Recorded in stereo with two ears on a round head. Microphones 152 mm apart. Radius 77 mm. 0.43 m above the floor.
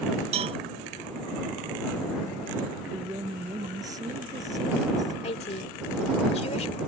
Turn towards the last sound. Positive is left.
turn(degrees=35)  # may be behind; listen again after turning